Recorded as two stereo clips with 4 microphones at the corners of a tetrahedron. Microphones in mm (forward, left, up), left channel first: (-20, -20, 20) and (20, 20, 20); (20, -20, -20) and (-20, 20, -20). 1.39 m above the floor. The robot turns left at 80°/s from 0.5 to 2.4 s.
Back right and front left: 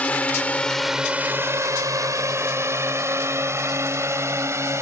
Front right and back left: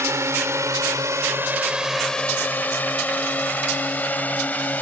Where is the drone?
160° left; by 4.8 s 10° left.